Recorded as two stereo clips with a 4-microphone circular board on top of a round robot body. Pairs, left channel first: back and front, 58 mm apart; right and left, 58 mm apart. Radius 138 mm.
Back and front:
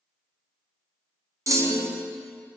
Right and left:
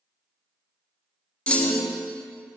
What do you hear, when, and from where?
1.5 s a clunk: 25° right, 0.9 m